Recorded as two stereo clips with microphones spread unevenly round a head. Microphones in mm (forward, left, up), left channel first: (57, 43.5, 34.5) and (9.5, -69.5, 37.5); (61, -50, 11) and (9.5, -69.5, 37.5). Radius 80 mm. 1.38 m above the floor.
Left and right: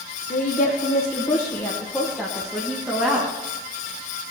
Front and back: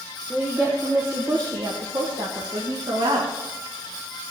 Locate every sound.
0.3 s a woman speaking: 100° left, 1.0 m; by 3.3 s 170° left, 1.8 m